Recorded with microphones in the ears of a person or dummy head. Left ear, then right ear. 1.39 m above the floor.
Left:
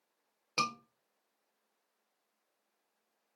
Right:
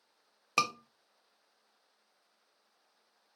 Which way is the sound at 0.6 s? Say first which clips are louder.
Right 3 dB; 40° right (ahead or behind).